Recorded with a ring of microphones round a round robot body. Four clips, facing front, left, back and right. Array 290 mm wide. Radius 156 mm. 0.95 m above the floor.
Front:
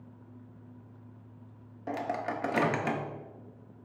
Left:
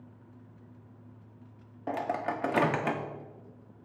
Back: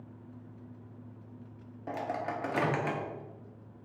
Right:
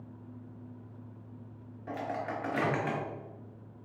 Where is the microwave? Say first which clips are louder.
Left 4 dB, front 2 dB; 80° left, 0.5 m.